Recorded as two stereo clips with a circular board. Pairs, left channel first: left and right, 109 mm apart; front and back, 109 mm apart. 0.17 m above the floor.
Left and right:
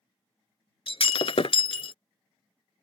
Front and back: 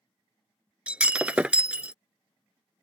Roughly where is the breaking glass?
Left.